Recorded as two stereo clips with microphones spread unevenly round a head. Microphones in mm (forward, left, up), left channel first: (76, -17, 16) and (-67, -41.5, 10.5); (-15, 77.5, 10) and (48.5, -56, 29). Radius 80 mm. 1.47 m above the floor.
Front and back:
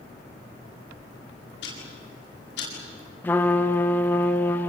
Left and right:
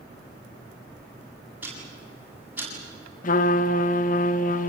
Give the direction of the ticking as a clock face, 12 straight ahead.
12 o'clock.